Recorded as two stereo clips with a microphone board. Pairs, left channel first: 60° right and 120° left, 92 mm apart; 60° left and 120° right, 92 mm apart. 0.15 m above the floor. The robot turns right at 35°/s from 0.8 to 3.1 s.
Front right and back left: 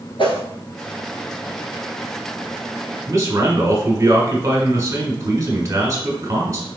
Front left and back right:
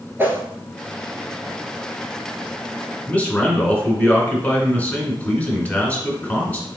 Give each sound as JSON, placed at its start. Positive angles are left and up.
{"t": 0.2, "sound": "a whoosh", "azimuth_deg": -60, "distance_m": 1.0}
{"t": 3.1, "sound": "a man speaking", "azimuth_deg": 120, "distance_m": 1.4}